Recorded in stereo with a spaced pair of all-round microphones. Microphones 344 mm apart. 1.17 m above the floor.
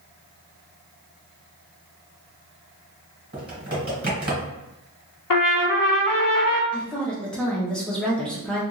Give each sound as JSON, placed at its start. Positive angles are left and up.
{"t": 3.3, "sound": "typing on a keyboard", "side_deg": -25, "distance_m": 1.9}
{"t": 5.3, "sound": "a trumpet", "side_deg": 70, "distance_m": 0.5}
{"t": 6.7, "sound": "a woman speaking", "side_deg": 0, "distance_m": 0.7}